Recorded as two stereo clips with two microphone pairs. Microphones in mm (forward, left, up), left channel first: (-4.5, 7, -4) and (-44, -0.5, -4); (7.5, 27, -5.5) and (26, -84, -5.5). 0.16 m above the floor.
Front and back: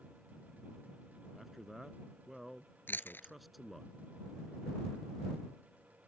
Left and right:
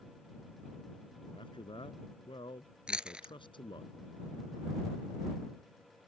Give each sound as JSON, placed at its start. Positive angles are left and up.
{"t": 1.3, "sound": "a man speaking", "azimuth_deg": 105}
{"t": 2.9, "sound": "chewing", "azimuth_deg": 0}